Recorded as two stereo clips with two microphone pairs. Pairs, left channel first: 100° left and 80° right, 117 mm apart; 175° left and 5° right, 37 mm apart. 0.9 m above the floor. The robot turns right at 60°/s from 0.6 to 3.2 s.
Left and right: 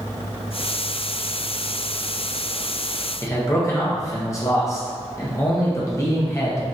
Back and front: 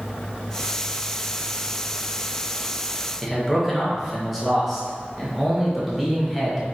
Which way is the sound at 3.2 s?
80° left.